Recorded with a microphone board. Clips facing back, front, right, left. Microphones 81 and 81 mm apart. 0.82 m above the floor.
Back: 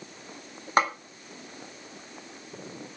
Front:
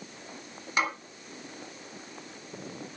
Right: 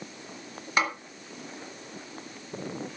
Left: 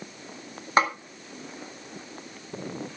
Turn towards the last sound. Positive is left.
turn(degrees=140)